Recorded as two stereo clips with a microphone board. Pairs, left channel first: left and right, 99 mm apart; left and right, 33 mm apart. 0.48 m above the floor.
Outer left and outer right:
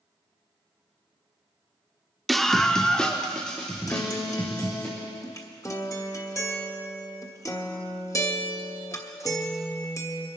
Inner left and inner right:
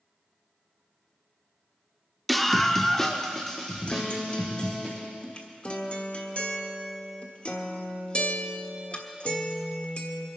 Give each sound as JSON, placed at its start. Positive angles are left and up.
{"t": 2.3, "sound": "a scream", "side_deg": 0, "distance_m": 0.7}
{"t": 3.9, "sound": "a guitar", "side_deg": 35, "distance_m": 1.3}